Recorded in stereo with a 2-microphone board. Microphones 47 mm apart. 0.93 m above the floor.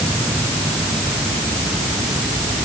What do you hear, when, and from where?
Only background noise.